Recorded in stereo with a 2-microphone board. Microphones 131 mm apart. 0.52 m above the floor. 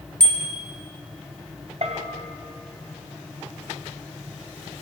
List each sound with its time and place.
0.2 s a bicycle bell: 5° left (ahead or behind), 2.5 m
1.8 s a bell: 55° right (ahead or behind), 1.8 m